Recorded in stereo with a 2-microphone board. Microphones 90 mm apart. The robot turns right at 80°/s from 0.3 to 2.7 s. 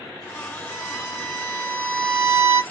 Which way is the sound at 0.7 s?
60° left.